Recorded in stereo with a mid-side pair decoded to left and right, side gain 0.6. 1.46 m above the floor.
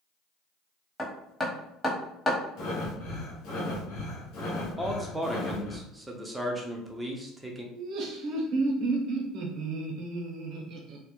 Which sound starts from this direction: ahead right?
Laughter, at 7.8 s.